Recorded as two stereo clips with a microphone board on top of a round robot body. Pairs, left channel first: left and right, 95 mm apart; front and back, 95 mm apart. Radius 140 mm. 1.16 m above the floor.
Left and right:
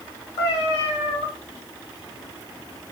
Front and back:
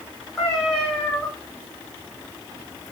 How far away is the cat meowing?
About 1.2 m.